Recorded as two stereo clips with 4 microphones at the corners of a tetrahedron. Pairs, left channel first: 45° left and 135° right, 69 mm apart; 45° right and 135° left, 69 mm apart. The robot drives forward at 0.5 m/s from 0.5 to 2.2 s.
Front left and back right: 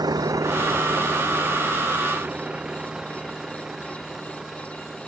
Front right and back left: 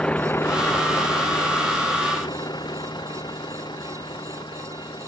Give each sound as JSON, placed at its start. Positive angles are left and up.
{"t": 0.0, "sound": "a vehicle", "azimuth_deg": -125}